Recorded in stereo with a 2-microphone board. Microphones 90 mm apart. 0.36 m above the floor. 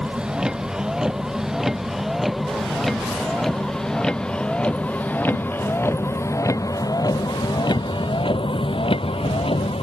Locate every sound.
0.0 s a vehicle: 10° right (ahead or behind); by 9.8 s 85° left